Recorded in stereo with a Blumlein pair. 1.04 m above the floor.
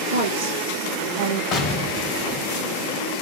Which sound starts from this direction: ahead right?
A woman speaking, at 0.1 s.